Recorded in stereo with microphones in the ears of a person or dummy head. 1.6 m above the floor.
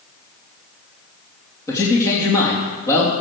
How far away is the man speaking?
About 3.5 m.